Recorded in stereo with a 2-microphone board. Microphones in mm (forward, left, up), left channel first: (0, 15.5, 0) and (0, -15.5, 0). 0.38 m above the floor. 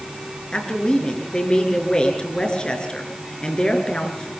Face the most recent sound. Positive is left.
turn(degrees=30)  # may be behind; listen again after turning